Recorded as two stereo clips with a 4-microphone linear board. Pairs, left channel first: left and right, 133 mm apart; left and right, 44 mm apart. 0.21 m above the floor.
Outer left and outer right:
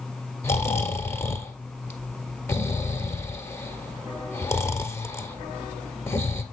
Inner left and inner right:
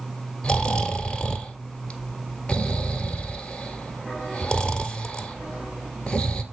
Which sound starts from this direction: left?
Snoring, at 0.4 s.